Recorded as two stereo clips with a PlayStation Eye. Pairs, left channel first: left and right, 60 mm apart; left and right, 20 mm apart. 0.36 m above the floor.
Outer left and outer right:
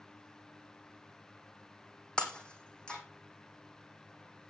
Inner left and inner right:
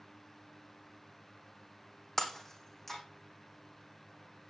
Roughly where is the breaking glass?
Centre.